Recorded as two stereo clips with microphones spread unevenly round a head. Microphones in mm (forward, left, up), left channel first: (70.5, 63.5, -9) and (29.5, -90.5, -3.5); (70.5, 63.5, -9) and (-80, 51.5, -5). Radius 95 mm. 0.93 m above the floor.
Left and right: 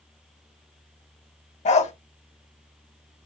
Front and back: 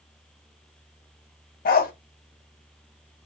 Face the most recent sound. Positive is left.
turn(degrees=30)